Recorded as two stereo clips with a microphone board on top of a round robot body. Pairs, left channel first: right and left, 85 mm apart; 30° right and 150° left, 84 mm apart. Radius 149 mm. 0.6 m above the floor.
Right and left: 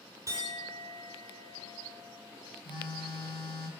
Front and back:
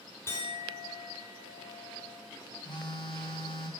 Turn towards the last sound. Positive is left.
turn(degrees=-65)